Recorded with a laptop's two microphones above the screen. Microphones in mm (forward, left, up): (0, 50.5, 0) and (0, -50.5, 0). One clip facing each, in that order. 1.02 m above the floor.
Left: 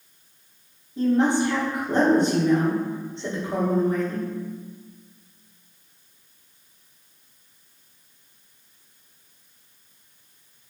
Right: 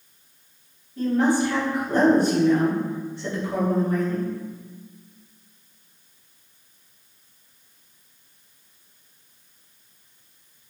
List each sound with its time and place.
1.0 s a woman speaking: 25° left (ahead or behind), 0.8 m